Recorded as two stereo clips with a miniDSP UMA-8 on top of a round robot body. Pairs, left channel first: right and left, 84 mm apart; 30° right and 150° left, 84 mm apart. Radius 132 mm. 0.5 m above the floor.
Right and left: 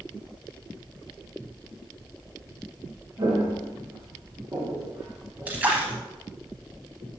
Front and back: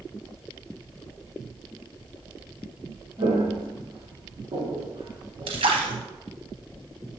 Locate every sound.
3.2 s footsteps: 140° left, 2 m; by 5.9 s 170° left, 3 m
5.5 s a splash: 165° left, 0.6 m